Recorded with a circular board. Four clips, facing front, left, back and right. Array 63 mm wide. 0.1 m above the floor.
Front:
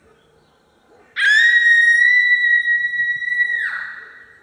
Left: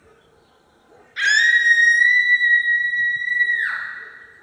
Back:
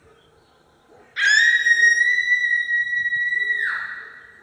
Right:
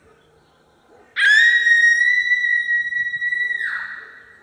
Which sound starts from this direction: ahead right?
A scream, at 1.2 s.